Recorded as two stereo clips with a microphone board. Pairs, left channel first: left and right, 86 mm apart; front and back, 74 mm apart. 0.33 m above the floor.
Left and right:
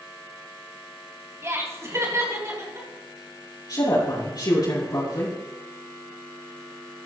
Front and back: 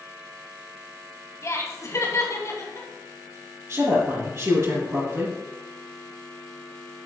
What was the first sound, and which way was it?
Laughter, 40° right.